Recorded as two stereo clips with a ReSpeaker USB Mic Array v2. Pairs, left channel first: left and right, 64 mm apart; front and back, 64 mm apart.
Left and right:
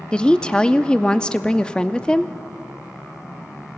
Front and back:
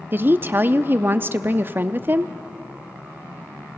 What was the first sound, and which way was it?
A woman speaking, 155° left.